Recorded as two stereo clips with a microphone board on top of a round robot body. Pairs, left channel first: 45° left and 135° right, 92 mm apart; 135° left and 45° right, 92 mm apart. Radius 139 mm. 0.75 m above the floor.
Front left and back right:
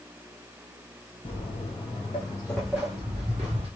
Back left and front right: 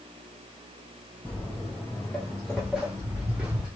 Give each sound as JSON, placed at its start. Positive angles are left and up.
{"t": 1.2, "sound": "footsteps", "azimuth_deg": 60, "distance_m": 1.1}